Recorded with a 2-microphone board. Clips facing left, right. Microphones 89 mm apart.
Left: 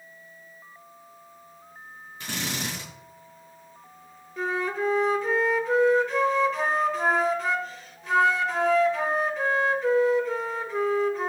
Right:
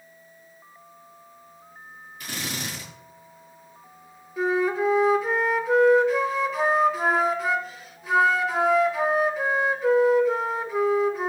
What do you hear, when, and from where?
2.2 s a drill: 30° left (ahead or behind), 7 m
4.4 s a flute: 5° right (ahead or behind), 1.4 m